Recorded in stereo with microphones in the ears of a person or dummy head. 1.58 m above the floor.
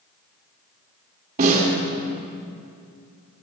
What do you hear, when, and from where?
1.4 s a snare drum: 50° right (ahead or behind), 2 m